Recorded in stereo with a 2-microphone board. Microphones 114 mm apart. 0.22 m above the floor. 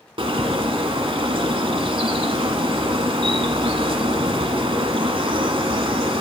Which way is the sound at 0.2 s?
55° right (ahead or behind).